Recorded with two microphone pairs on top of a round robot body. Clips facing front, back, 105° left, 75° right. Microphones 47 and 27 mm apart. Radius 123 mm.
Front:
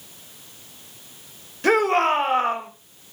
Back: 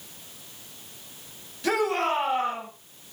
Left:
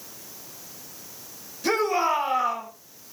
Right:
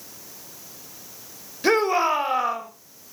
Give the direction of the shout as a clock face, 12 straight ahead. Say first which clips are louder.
Front 6 dB, right 3 dB; 1 o'clock.